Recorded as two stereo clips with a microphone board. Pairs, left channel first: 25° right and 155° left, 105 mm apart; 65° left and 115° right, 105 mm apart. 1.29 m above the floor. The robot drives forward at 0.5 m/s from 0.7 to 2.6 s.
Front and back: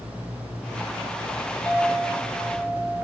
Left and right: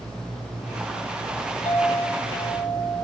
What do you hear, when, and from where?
1.6 s a clink: 50° left, 1.7 m; by 3.0 s 70° left, 1.4 m